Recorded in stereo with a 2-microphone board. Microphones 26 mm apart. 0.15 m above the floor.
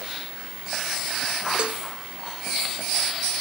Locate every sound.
1.6 s a cowbell: 40° right (ahead or behind)